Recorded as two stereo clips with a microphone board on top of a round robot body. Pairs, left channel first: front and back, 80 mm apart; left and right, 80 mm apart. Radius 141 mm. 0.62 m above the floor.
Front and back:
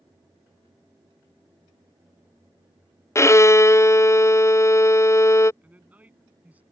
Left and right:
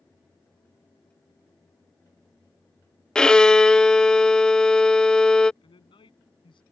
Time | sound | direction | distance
3.1 | a violin | 15° left | ?
5.6 | a man speaking | 105° left | ?